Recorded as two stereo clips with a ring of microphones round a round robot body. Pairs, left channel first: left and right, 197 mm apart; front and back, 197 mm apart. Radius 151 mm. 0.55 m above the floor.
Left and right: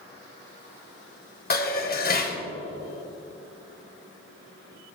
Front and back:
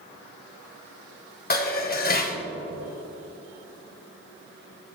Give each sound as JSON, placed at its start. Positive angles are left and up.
{"t": 1.5, "sound": "dishes clattering", "azimuth_deg": 45, "distance_m": 2.0}